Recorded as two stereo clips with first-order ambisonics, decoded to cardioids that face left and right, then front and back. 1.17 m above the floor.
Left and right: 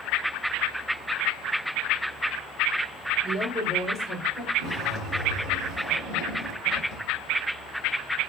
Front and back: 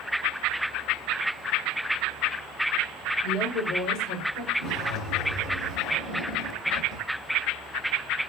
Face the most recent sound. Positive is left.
turn(degrees=35)